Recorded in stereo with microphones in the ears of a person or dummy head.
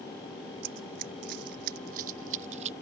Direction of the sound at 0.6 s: 45° right (ahead or behind).